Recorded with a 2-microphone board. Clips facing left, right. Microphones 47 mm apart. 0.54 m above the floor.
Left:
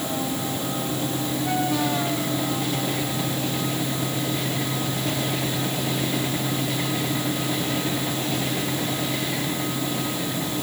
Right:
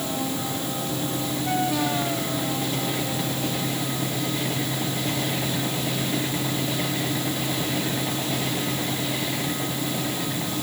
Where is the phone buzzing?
I don't hear a phone buzzing.